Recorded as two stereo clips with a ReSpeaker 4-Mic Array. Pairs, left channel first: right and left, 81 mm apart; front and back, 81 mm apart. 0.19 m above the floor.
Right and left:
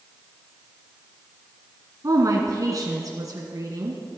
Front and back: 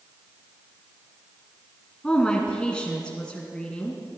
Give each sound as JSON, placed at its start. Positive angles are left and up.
{"t": 2.0, "sound": "a woman speaking", "azimuth_deg": 75, "distance_m": 1.5}